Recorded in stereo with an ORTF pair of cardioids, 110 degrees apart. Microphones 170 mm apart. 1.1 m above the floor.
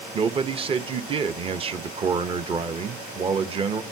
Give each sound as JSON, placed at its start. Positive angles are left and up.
{"t": 0.1, "sound": "a man speaking", "azimuth_deg": -30, "distance_m": 0.9}